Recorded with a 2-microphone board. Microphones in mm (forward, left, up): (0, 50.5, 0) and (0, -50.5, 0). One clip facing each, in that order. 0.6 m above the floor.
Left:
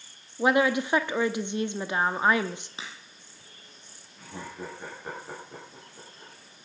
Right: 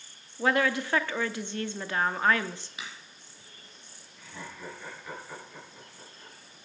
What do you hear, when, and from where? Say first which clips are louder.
0.4 s a woman speaking: left 3 dB; 20° left (ahead or behind), 0.6 m
2.8 s a crack: left 1 dB; 30° left (ahead or behind), 4.5 m
4.2 s laughter: left 4 dB; 50° left (ahead or behind), 10 m